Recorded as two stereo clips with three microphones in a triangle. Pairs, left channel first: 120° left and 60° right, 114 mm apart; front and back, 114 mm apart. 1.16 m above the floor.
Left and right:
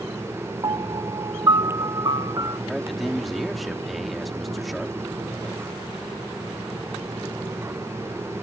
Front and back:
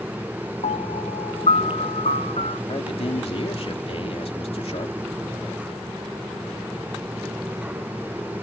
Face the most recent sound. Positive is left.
turn(degrees=30)